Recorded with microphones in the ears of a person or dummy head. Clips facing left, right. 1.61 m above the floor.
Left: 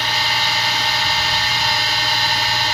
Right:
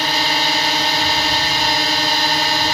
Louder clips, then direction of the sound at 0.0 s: Right 4 dB; 35° right (ahead or behind).